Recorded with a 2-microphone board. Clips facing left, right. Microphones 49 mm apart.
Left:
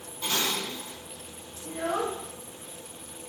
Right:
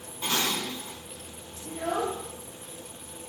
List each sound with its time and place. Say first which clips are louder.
0.2 s dishes clattering: right 1 dB; 15° right (ahead or behind), 0.7 m
1.6 s a child speaking: even; 40° left (ahead or behind), 0.9 m